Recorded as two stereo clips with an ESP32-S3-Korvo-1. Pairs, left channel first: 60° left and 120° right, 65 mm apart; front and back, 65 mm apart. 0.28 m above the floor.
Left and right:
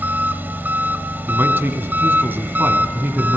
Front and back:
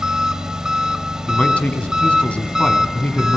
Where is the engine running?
115° right, 1.2 m.